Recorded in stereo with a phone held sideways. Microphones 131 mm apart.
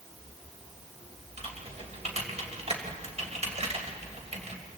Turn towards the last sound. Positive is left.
turn(degrees=-50)  # may be behind; listen again after turning